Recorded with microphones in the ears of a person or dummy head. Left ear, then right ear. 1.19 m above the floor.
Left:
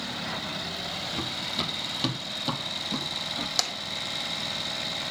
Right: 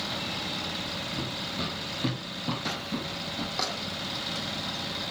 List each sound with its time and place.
1.1 s running footsteps: 55° left (ahead or behind), 1.9 m; by 3.5 s 45° left (ahead or behind), 2.5 m
3.6 s tapping: 75° left (ahead or behind), 2.0 m